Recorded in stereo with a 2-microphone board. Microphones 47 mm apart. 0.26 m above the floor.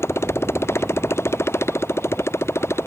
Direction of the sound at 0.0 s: 85° left.